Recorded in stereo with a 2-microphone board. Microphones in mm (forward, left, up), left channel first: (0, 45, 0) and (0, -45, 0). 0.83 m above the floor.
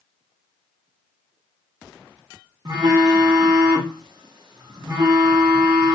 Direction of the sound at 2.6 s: 45° right (ahead or behind).